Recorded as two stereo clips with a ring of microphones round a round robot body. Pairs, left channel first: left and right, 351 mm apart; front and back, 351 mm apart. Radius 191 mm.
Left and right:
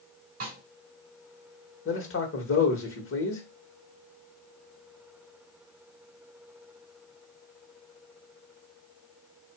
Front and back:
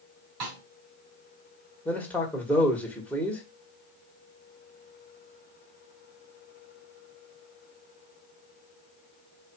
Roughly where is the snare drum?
Behind right.